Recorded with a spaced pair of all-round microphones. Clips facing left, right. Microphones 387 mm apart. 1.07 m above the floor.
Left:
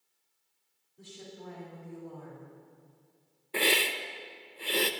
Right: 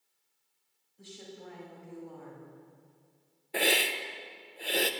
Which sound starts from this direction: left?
A woman speaking, at 1.0 s.